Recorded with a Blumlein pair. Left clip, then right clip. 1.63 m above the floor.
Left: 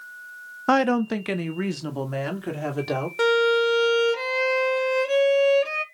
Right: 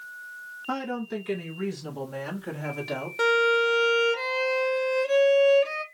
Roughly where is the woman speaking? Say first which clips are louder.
Left 11 dB; ahead left.